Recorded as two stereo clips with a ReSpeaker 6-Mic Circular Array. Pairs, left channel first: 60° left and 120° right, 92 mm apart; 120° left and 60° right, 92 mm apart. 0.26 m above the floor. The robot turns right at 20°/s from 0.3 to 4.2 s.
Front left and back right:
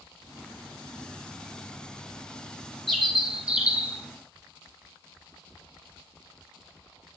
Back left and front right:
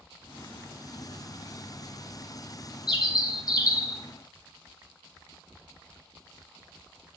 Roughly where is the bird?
Behind left.